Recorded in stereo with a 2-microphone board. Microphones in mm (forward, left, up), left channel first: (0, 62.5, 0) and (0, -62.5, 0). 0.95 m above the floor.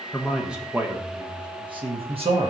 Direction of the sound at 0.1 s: 5° left (ahead or behind).